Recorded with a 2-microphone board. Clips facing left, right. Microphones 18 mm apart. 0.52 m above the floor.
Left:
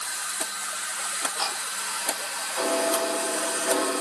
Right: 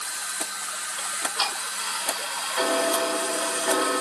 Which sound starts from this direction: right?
Ticking, at 1.0 s.